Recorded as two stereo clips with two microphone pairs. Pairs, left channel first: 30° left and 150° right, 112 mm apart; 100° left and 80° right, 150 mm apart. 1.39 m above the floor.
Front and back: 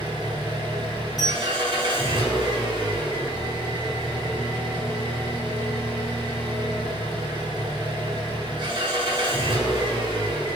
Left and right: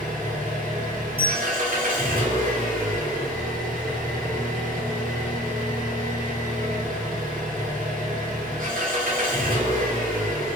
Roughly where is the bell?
Ahead right.